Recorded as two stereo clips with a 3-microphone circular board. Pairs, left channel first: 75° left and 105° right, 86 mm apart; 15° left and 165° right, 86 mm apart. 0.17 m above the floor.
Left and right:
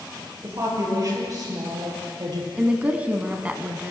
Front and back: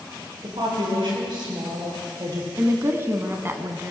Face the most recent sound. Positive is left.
turn(degrees=-160)